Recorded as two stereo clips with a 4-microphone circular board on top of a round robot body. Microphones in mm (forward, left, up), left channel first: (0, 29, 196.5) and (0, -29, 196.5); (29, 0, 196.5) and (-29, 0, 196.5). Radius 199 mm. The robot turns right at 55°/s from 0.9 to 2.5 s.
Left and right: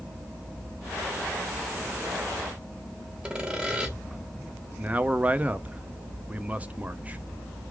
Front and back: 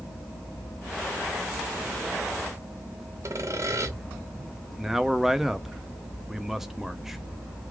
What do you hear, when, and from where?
3.2 s sawing: 165° right, 1.7 m
4.8 s a man speaking: 105° right, 0.8 m